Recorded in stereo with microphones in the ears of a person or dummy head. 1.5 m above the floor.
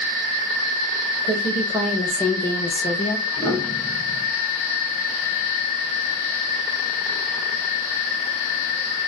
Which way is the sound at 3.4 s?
Centre (ahead or behind).